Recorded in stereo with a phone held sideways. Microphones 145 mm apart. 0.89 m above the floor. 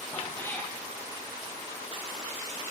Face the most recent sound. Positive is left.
turn(degrees=10)  # may be behind; listen again after turning